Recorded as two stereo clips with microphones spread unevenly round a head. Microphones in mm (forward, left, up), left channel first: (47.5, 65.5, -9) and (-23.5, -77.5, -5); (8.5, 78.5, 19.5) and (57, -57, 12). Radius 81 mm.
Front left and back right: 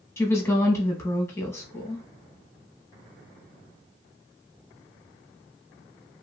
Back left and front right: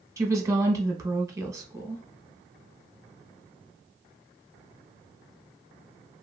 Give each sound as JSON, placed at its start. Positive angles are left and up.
{"t": 0.2, "sound": "a woman speaking", "azimuth_deg": -5, "distance_m": 1.0}